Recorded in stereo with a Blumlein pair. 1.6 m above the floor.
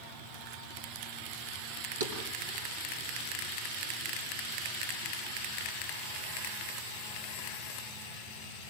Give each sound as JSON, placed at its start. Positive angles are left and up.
{"t": 2.0, "sound": "a thud", "azimuth_deg": -60, "distance_m": 7.0}